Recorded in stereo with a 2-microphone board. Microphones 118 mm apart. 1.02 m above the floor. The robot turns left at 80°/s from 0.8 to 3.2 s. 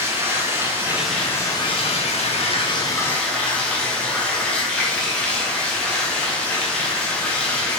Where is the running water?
160° right, 0.8 m; by 7.8 s 10° left, 0.8 m.